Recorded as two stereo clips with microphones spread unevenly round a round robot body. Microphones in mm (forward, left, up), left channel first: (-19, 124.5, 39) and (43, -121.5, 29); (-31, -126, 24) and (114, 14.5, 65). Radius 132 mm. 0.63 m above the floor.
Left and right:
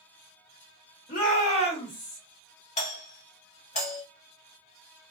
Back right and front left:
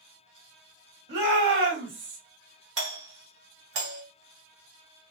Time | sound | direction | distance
1.1 | a shout | 55° left | 1.7 m
2.8 | a doorbell | 50° left | 1.9 m